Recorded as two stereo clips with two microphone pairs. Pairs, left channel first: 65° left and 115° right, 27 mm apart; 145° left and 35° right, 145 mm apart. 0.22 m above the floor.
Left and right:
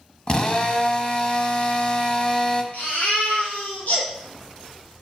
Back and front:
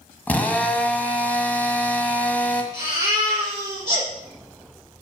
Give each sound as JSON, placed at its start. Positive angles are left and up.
{"t": 0.3, "sound": "a drill", "azimuth_deg": 75, "distance_m": 1.2}
{"t": 2.7, "sound": "a baby crying", "azimuth_deg": 40, "distance_m": 4.5}